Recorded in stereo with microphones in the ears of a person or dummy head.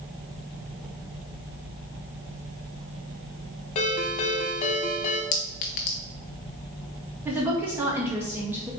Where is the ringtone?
40° left (ahead or behind), 1.1 m.